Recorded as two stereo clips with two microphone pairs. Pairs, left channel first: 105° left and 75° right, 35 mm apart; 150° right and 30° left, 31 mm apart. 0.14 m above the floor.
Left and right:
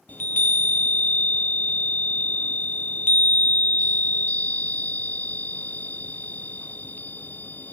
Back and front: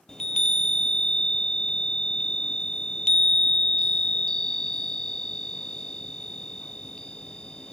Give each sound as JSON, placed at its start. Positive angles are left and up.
{"t": 0.1, "sound": "a chime", "azimuth_deg": 140, "distance_m": 0.8}